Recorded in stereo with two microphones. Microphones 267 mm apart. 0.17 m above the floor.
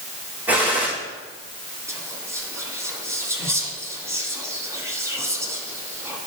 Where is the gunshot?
5° right (ahead or behind), 3 m.